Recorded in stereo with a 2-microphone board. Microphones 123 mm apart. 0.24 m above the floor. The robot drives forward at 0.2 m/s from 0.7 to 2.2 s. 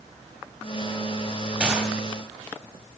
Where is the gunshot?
10° right (ahead or behind), 0.8 m.